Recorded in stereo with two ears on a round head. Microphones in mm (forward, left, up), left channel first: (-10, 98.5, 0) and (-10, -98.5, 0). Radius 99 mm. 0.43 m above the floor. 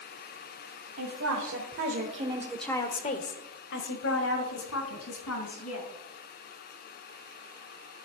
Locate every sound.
1.0 s a woman speaking: 65° right (ahead or behind), 2.5 m; by 5.9 s 75° left (ahead or behind), 4.5 m